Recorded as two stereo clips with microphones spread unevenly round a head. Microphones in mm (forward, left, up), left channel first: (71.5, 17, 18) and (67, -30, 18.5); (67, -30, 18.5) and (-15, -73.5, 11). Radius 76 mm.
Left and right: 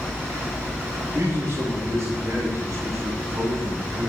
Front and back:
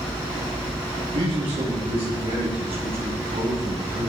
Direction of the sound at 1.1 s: 145° right.